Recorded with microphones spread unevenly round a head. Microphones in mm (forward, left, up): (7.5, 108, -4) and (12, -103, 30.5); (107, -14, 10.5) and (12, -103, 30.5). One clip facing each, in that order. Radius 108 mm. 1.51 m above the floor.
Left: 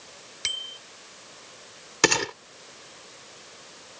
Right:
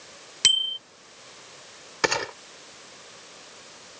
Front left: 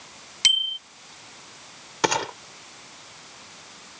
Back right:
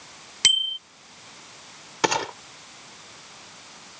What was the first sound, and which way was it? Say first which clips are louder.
A bicycle bell: right 4 dB, back right 1 dB; 110° right.